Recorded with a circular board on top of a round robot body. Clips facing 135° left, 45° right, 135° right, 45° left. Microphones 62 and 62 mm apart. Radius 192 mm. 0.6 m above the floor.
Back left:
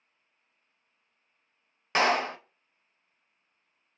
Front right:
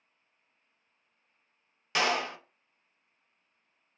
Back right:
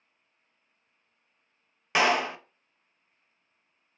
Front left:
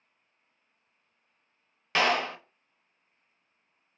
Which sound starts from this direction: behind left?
A clap, at 1.9 s.